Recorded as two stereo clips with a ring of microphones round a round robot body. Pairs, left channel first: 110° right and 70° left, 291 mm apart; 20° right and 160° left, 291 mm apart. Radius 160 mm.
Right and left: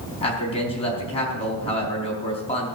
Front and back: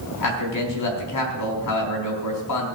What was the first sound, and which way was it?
A man speaking, 40° right.